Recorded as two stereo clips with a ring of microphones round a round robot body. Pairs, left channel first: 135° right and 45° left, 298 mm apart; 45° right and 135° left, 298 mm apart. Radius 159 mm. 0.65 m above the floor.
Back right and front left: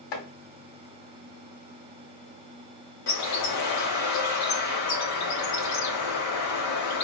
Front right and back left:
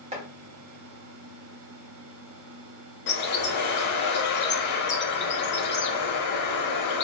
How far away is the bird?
About 0.8 m.